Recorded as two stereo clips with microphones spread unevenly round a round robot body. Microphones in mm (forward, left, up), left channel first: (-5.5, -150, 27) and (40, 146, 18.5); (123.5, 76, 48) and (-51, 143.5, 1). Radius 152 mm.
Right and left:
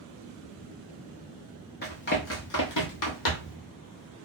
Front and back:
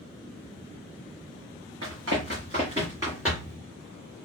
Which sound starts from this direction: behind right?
Running footsteps, at 1.8 s.